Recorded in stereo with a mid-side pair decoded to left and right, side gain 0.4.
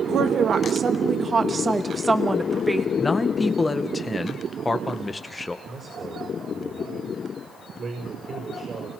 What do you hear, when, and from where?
0.1 s a woman speaking: 70° right, 2.5 m; by 2.9 s 5° right, 2.5 m
3.0 s a man speaking: 25° left, 2 m
5.7 s a man speaking: 45° right, 6.5 m